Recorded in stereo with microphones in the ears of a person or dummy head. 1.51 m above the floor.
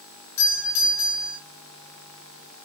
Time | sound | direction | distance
0.4 | a doorbell | 75° left (ahead or behind) | 3 m